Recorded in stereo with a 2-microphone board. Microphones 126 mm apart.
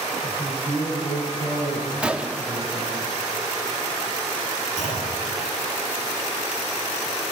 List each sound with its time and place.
0.2 s a man speaking: 35° left (ahead or behind), 6.5 m; by 3.0 s 50° left (ahead or behind), 9.5 m
2.0 s a gunshot: 10° right (ahead or behind), 0.7 m
4.8 s a clunk: 70° left (ahead or behind), 8 m